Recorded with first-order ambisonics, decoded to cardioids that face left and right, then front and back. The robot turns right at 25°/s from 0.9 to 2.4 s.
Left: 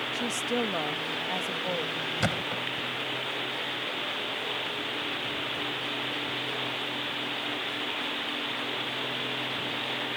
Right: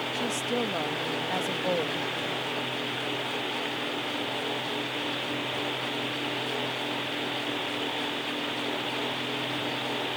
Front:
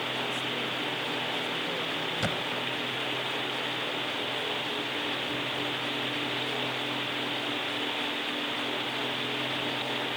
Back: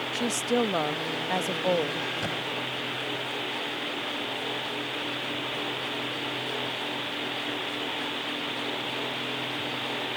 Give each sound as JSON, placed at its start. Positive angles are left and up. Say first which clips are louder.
{"t": 0.1, "sound": "a woman speaking", "louder": "even, back 4 dB", "azimuth_deg": 180}
{"t": 2.2, "sound": "a thud", "louder": "left 1 dB, even", "azimuth_deg": 75}